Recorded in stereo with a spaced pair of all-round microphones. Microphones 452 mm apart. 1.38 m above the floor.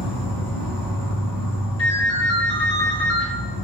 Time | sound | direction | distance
0.0 | an insect | 50° left (ahead or behind) | 1.8 m
1.8 | a ringtone | 30° left (ahead or behind) | 1.1 m